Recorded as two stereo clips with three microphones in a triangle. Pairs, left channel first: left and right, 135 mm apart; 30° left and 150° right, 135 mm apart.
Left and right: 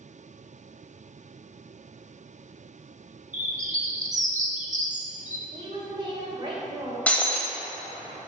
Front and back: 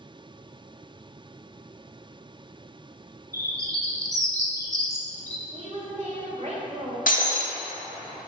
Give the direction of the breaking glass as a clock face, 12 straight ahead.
12 o'clock.